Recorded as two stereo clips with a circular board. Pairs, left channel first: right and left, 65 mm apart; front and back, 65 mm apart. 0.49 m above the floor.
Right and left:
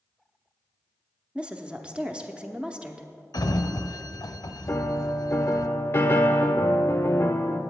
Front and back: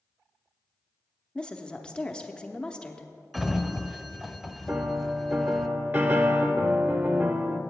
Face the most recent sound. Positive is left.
turn(degrees=-130)